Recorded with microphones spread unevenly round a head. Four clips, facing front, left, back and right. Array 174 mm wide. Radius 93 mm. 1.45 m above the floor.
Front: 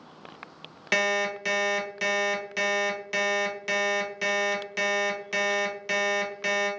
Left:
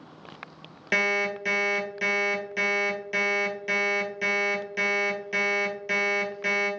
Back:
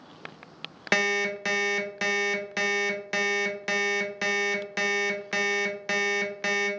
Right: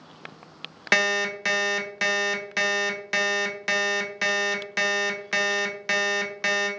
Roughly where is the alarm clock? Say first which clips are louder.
Right 2 dB, even; behind right.